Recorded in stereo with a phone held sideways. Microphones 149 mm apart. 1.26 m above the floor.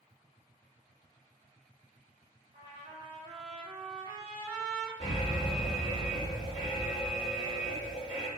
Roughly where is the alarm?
Right.